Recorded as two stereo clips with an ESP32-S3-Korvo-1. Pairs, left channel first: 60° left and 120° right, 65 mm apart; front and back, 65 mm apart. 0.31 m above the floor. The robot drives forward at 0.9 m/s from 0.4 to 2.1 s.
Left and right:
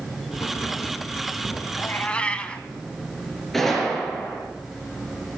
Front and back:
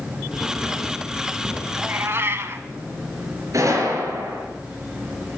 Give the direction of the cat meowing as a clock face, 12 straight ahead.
8 o'clock.